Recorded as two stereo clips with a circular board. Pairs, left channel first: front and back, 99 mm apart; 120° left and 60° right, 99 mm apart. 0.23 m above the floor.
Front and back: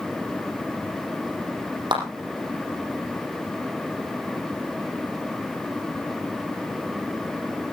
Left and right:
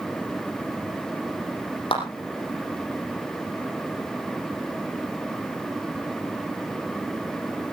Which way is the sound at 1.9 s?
145° left.